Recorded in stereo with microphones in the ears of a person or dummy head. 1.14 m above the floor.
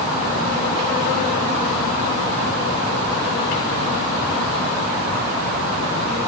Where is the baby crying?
I don't hear a baby crying.